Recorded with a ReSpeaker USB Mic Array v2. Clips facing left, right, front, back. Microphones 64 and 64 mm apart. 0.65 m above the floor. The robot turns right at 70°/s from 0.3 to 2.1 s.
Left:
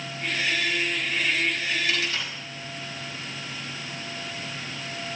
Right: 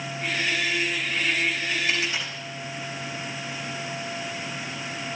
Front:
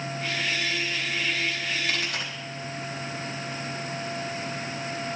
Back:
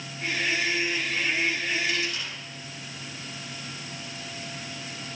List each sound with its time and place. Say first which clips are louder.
1.9 s a dropped coin: right 1 dB, front 1 dB; 30° right, 4.5 m; by 2.3 s 15° right, 4.5 m